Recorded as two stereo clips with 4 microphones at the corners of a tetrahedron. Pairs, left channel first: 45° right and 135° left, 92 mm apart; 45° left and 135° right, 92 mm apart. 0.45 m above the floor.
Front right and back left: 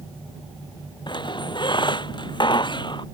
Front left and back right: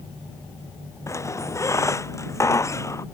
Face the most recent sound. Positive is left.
turn(degrees=-10)